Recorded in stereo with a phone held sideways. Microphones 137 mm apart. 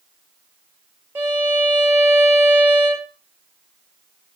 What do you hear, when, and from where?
1.1 s a violin: 15° right (ahead or behind), 1.8 m